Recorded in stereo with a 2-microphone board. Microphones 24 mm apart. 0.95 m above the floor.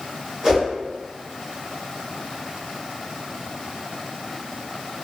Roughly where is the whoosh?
Right.